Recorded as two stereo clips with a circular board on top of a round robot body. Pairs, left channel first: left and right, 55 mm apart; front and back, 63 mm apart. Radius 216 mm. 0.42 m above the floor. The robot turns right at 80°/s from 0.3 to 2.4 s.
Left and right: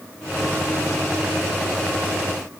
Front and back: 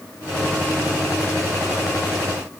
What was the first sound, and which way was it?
Only background noise.